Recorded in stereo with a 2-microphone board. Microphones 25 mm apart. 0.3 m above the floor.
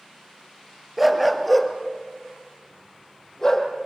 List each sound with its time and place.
1.0 s a dog barking: centre (ahead or behind), 2.5 m; by 3.7 s 25° left (ahead or behind), 4.5 m